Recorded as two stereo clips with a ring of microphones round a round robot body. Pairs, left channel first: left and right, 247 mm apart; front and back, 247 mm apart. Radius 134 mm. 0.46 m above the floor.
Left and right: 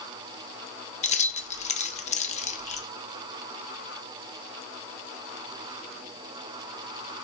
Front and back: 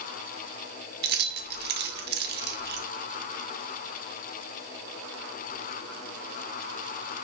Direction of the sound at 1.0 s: 145° left.